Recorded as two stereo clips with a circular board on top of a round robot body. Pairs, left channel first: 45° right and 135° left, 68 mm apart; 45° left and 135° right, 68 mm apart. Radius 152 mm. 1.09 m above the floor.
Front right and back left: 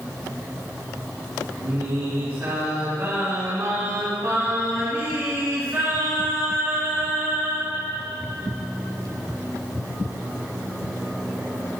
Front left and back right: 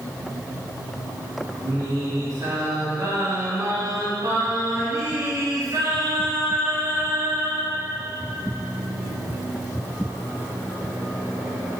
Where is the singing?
165° right, 3.5 m.